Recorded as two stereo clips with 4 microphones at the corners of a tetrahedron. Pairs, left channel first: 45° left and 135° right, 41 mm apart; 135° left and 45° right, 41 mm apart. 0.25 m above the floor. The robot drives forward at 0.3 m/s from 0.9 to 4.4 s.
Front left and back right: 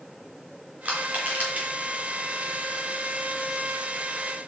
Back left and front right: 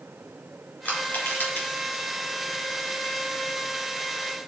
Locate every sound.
0.8 s crushing: 170° left, 3.5 m; by 1.7 s 175° left, 3.5 m